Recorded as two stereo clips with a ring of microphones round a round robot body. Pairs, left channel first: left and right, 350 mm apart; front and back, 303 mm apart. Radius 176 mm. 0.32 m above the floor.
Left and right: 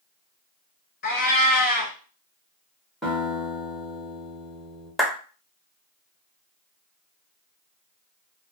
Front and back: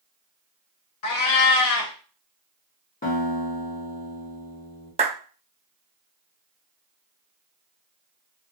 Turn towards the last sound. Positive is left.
turn(degrees=180)